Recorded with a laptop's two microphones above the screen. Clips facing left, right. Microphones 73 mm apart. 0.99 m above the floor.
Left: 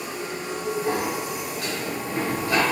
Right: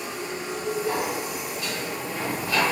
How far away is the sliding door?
About 7.5 m.